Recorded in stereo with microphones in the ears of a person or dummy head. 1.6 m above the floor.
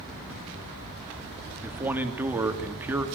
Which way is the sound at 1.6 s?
10° right (ahead or behind).